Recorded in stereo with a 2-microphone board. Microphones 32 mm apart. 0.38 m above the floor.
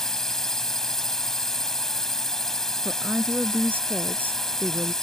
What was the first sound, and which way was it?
A drone, 15° left (ahead or behind).